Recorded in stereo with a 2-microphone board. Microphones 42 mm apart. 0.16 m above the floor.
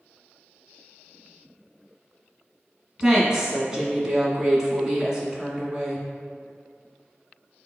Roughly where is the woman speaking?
Centre.